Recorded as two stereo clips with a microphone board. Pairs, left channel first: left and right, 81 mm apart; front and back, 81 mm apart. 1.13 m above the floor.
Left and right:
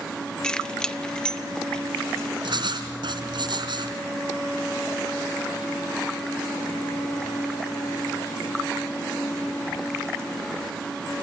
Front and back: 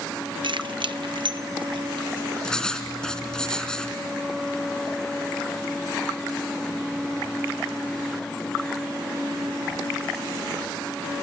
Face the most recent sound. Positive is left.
turn(degrees=-80)